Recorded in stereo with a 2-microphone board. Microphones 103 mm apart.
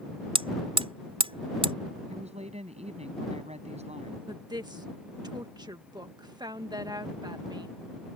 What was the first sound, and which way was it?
Hammering, 60° right (ahead or behind).